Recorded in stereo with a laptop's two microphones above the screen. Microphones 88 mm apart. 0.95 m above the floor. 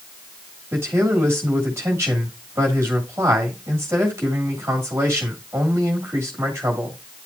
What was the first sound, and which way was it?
A man speaking, 30° right (ahead or behind).